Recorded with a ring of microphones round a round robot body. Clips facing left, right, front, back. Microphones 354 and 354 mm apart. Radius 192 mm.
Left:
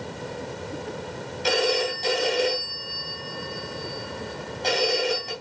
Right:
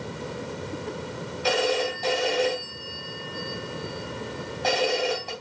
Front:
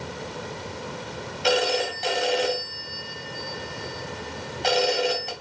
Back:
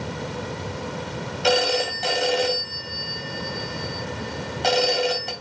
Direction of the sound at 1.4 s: 175° left.